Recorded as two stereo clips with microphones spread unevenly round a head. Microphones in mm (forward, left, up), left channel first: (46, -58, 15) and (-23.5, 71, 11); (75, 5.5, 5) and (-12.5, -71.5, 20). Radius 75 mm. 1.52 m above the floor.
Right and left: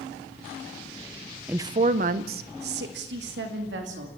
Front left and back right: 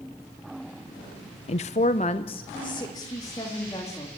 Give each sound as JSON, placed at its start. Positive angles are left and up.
{"t": 1.5, "sound": "a woman speaking", "azimuth_deg": 40, "distance_m": 0.5}